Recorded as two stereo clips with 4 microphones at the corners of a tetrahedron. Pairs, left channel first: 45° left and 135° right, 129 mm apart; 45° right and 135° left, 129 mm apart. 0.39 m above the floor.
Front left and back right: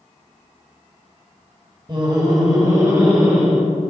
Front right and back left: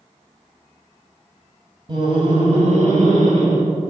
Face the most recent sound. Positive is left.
turn(degrees=155)